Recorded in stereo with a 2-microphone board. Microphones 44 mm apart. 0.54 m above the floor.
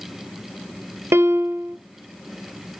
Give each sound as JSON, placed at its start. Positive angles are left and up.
{"t": 1.1, "sound": "a piano", "side_deg": -75, "distance_m": 0.9}